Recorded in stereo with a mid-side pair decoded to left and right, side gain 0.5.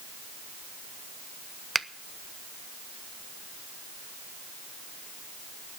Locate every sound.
1.8 s a finger snap: 15° right, 0.6 m